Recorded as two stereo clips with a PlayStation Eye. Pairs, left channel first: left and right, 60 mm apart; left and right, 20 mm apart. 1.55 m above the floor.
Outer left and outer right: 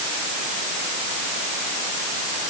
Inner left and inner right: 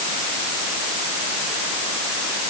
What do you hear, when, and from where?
Only background noise.